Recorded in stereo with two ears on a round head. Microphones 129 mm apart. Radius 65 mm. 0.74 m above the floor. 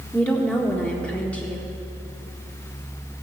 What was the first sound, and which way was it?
A woman speaking, 10° left (ahead or behind).